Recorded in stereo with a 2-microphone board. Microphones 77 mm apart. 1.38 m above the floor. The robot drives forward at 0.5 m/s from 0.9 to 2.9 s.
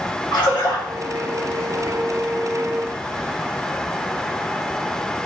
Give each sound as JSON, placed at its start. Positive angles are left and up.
{"t": 0.3, "sound": "a splash", "side_deg": 80, "distance_m": 2.0}